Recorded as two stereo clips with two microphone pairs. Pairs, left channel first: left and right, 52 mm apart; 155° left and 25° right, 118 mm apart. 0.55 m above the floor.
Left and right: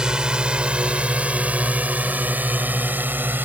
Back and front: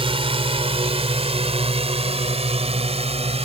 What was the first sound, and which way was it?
A drone, 15° right.